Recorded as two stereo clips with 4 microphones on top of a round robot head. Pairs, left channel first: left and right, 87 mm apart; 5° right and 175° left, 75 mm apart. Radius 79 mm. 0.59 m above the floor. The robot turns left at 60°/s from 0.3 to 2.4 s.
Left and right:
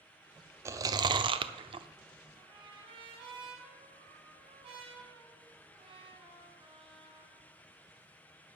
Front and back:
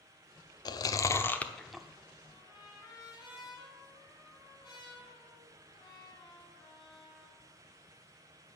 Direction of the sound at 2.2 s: 50° right.